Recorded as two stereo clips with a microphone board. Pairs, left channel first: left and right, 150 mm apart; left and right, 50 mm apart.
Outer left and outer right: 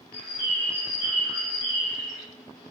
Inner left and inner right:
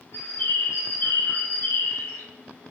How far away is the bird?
About 1.8 m.